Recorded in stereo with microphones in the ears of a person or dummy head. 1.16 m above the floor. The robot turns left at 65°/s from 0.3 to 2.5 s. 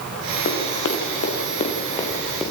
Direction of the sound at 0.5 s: 70° left (ahead or behind).